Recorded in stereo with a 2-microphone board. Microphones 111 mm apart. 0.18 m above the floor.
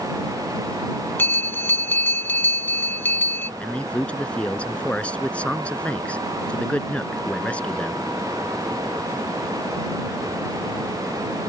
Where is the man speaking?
10° left (ahead or behind).